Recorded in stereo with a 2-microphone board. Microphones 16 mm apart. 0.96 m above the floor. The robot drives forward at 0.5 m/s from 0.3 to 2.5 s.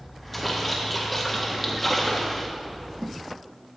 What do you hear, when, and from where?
0.3 s a splash: 5° left (ahead or behind), 2.5 m; by 2.5 s 10° left (ahead or behind), 1.3 m